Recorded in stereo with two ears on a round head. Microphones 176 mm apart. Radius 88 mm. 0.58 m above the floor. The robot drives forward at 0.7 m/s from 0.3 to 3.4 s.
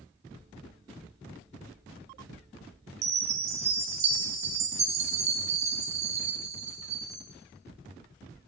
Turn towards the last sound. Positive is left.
turn(degrees=-35)  # may be behind; listen again after turning